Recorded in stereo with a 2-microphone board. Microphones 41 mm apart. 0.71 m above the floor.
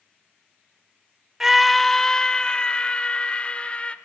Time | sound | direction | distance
1.4 | a scream | 10° right (ahead or behind) | 0.5 m